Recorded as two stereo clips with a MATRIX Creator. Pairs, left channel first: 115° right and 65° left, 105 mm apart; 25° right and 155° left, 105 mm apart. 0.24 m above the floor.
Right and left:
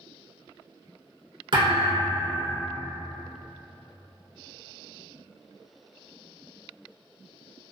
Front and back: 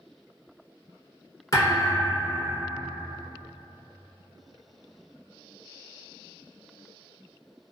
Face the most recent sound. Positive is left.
turn(degrees=35)